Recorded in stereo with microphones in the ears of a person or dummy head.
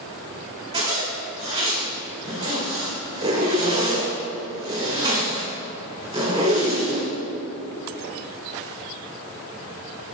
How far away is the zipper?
About 2.0 m.